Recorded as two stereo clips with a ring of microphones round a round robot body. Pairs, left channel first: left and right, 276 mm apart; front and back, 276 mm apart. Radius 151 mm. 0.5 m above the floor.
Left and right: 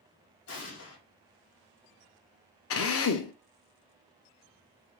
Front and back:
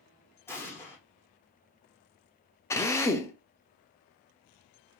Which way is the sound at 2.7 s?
80° left.